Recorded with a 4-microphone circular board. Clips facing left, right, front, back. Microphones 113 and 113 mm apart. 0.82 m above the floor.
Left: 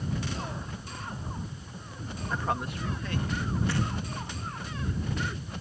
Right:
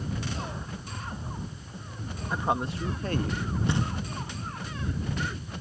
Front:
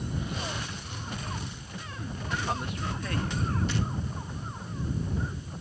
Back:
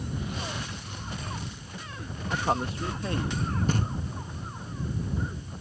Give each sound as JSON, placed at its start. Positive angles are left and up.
{"t": 2.3, "sound": "a man speaking", "azimuth_deg": -165}
{"t": 3.7, "sound": "knocking", "azimuth_deg": -155}